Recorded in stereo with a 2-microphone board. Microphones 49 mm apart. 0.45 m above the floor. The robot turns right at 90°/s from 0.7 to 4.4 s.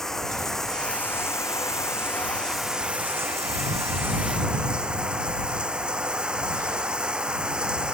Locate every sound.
0.0 s running water: 10° left; by 8.0 s 20° right